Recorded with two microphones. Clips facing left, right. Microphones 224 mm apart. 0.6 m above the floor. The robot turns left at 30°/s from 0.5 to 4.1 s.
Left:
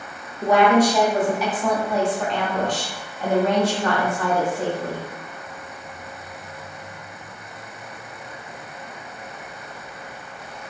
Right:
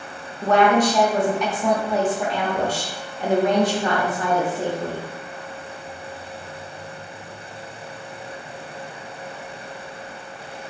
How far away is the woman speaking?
About 0.6 m.